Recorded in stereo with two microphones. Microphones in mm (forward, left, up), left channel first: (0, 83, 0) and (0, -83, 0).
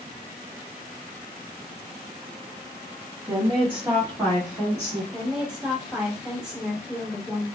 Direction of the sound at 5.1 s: 5° right (ahead or behind).